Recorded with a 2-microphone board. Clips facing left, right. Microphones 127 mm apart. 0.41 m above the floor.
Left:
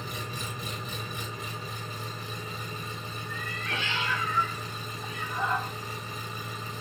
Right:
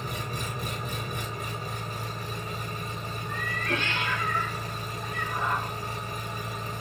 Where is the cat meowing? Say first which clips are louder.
Right 6 dB; 60° right (ahead or behind), 1.0 m.